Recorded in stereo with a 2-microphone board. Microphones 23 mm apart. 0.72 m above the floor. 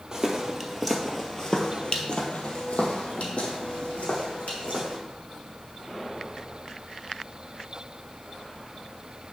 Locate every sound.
0.1 s footsteps: 25° right (ahead or behind), 1.3 m; by 5.0 s 80° left, 3 m